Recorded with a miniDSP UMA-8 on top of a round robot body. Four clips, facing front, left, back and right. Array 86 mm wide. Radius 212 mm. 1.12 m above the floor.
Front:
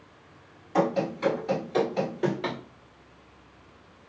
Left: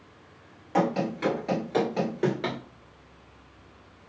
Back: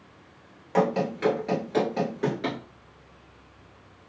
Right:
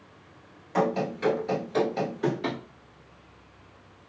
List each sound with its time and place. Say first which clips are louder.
0.7 s running footsteps: even, back 1 dB; 160° left, 1.5 m; by 2.6 s 80° left, 1.2 m